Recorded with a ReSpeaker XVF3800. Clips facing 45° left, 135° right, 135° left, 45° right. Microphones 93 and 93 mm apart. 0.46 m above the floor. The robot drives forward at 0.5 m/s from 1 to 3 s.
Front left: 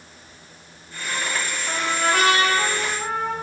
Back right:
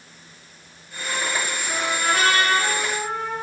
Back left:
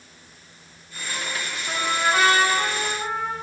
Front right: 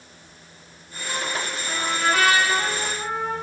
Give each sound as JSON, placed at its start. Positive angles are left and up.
{"t": 1.7, "sound": "a trumpet", "azimuth_deg": 65, "distance_m": 6.0}